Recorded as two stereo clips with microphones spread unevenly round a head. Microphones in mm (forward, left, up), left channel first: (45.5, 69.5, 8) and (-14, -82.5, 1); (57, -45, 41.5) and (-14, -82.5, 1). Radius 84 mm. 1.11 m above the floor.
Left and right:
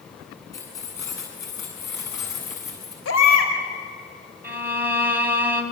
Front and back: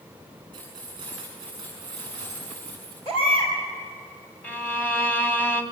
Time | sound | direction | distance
0.5 | keys jangling | 140° left | 8.5 m
3.0 | a baby crying | 85° left | 4 m
4.4 | a violin | 30° right | 3 m